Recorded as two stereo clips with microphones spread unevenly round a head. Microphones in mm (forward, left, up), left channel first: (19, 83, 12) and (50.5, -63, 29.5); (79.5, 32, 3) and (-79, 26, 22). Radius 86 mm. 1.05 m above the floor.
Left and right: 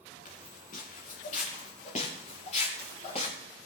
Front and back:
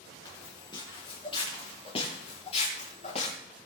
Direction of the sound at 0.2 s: 70° left.